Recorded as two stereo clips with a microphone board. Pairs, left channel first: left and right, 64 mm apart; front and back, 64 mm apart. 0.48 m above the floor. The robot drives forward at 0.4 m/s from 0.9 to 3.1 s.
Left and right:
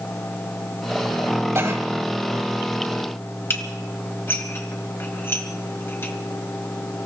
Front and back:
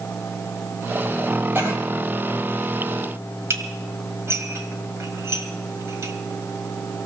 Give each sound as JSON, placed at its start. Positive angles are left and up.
{"t": 1.6, "sound": "a cough", "azimuth_deg": -130, "distance_m": 3.5}
{"t": 3.5, "sound": "dishes clattering", "azimuth_deg": 140, "distance_m": 1.9}